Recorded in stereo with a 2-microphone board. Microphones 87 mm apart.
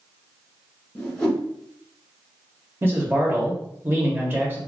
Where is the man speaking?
25° right (ahead or behind), 1.0 m.